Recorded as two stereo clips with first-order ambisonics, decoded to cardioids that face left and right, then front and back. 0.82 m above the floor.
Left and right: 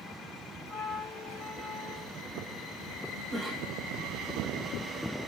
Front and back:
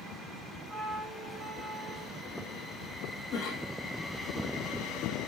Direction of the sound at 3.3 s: 5° right.